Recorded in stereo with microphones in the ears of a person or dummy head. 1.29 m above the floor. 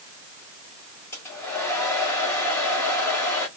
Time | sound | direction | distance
1.1 | a hair dryer | 10° left (ahead or behind) | 1.3 m